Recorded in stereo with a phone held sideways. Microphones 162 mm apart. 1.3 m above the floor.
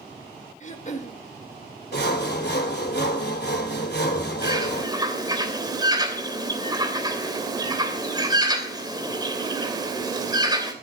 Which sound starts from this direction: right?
A bird, at 4.4 s.